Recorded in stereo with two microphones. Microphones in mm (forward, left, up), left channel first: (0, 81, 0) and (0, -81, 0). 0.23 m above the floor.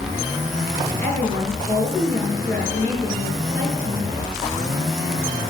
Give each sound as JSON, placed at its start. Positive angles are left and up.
{"t": 1.0, "sound": "a woman speaking", "side_deg": 10, "distance_m": 4.5}